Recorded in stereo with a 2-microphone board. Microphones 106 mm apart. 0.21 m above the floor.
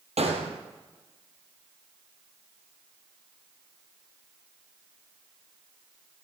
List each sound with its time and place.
0.2 s a gunshot: 85° right, 2 m